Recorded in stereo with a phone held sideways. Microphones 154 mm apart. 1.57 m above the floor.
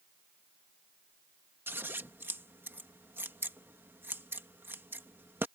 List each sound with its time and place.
1.7 s scissors: 15° right (ahead or behind)